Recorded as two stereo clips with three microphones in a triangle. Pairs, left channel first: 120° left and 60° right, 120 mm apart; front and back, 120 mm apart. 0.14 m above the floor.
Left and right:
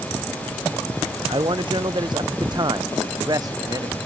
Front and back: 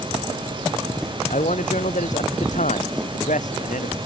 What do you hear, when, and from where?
1.3 s a man speaking: 10° right; by 4.0 s straight ahead